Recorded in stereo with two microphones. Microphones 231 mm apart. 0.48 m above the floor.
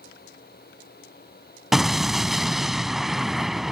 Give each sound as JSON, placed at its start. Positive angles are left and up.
{"t": 1.7, "sound": "an explosion", "side_deg": 0}